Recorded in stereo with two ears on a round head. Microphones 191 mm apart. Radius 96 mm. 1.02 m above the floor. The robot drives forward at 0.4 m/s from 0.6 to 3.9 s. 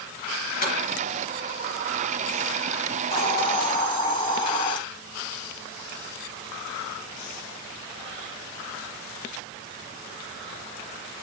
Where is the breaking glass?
40° left (ahead or behind), 3 m.